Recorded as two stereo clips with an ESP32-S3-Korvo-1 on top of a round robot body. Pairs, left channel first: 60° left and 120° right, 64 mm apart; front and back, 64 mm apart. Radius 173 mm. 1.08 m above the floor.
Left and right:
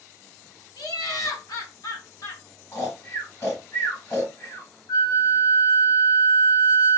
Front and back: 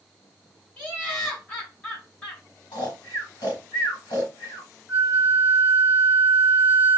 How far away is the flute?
About 1.3 m.